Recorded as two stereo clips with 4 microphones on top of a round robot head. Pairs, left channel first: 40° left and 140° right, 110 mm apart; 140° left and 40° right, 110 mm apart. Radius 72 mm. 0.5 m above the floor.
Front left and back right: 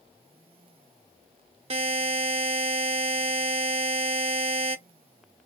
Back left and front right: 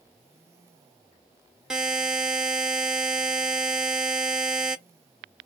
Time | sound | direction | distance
1.7 | a buzzer | 120° right | 0.7 m